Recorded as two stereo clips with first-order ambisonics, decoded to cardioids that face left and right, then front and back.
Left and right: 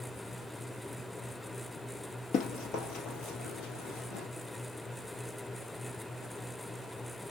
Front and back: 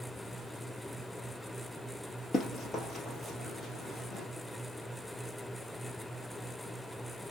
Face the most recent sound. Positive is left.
turn(degrees=65)